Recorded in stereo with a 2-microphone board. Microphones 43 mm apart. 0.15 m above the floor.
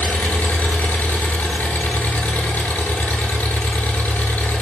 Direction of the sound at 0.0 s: 50° left (ahead or behind).